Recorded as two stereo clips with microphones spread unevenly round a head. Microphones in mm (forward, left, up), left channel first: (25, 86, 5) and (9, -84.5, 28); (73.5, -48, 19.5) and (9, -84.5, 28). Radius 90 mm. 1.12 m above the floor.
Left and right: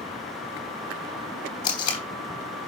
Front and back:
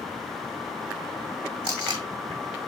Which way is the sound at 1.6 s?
150° left.